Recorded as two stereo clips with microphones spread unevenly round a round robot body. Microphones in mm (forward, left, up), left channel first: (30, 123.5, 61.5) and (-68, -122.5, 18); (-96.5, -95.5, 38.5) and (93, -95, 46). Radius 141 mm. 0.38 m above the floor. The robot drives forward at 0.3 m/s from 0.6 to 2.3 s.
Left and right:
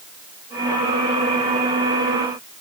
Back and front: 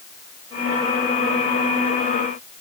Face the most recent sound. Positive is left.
No sound to turn to.